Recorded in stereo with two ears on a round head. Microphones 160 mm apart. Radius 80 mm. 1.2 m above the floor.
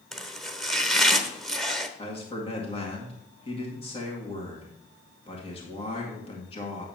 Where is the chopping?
Centre (ahead or behind), 0.9 m.